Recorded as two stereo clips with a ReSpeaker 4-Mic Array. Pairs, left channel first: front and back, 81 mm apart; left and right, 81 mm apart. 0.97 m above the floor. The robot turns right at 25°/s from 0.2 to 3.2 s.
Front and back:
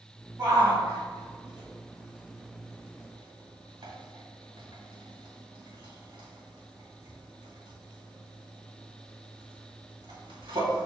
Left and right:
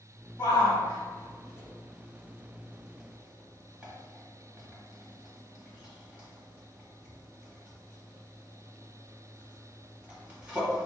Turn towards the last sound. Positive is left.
turn(degrees=-165)